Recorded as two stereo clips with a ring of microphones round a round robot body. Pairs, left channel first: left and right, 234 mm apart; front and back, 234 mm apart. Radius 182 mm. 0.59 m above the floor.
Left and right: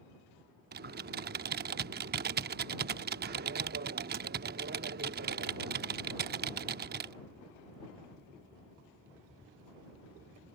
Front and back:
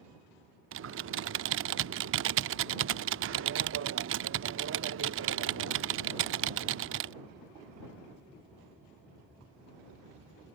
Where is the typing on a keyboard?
145° right.